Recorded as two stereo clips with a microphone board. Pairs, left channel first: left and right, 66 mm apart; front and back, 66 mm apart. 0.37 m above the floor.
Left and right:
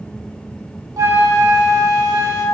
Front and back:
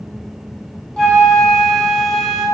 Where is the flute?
80° right, 2 m.